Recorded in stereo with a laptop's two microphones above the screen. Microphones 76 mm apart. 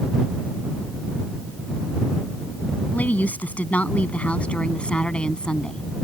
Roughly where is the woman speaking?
Centre.